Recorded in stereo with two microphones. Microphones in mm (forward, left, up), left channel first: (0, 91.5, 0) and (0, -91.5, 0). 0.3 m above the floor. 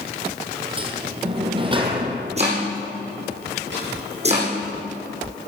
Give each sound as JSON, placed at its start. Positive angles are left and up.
{"t": 0.8, "sound": "a sliding door", "side_deg": -30, "distance_m": 2.0}
{"t": 2.4, "sound": "chopping", "side_deg": -35, "distance_m": 4.5}
{"t": 3.7, "sound": "a snare drum", "side_deg": -75, "distance_m": 8.0}